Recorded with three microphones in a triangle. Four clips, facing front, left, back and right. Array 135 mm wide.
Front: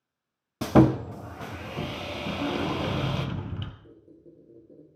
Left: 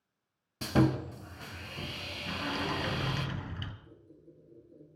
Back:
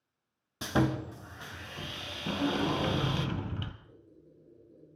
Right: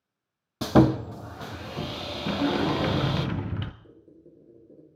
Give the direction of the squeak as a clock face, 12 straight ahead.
2 o'clock.